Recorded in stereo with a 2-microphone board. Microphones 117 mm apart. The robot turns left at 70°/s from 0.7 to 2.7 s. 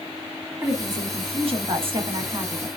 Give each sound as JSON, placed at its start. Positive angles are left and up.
{"t": 0.6, "sound": "a woman speaking", "azimuth_deg": -30, "distance_m": 1.5}